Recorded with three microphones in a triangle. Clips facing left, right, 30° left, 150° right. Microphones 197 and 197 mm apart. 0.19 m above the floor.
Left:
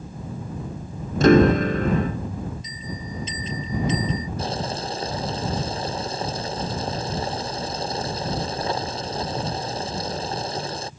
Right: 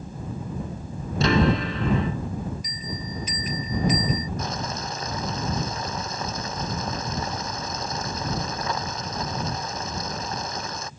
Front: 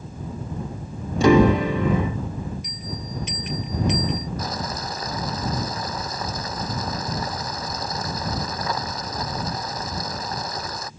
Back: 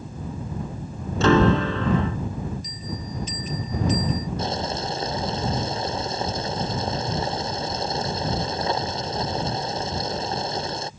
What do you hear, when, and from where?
1.2 s a piano: 105° left
2.6 s a bell: 25° left
4.4 s boiling: 150° left